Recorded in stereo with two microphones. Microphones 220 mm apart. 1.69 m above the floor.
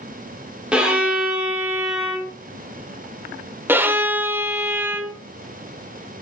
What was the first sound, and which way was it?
A violin, 5° right (ahead or behind).